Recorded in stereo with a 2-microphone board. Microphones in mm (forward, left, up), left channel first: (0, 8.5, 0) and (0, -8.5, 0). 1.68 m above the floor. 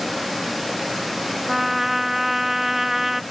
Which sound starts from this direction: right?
A trumpet, at 1.5 s.